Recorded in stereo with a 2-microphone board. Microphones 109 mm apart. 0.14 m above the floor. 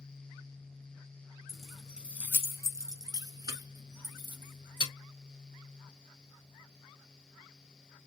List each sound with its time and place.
1.5 s keys jangling: 5° left (ahead or behind), 0.8 m; by 4.9 s 45° right (ahead or behind), 1.8 m